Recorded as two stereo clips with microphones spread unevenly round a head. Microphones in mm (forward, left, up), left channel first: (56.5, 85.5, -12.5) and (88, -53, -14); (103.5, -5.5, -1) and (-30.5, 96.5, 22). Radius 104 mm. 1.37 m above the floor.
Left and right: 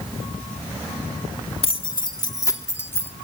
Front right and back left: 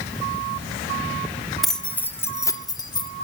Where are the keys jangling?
55° left, 1.8 m; by 3.1 s 25° left, 3 m.